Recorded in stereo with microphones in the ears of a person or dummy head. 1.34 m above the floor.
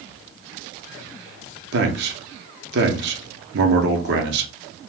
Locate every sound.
1.7 s a man speaking: 50° right (ahead or behind), 0.7 m